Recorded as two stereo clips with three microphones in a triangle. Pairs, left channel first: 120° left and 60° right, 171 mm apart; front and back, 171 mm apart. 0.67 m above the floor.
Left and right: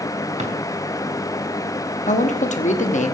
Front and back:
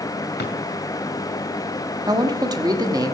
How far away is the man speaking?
About 1.1 m.